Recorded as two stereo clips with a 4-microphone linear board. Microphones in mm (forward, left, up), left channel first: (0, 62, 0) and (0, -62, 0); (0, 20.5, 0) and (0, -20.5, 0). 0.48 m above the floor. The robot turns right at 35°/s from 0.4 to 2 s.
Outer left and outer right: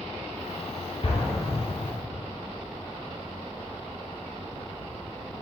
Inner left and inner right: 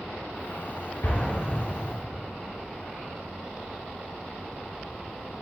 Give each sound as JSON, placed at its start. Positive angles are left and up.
{"t": 1.0, "sound": "an explosion", "side_deg": 55, "distance_m": 2.0}